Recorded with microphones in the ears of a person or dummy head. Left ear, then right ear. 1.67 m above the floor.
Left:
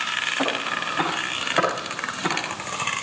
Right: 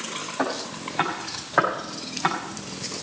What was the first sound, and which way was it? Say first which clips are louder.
Footsteps: left 4 dB; 55° right (ahead or behind).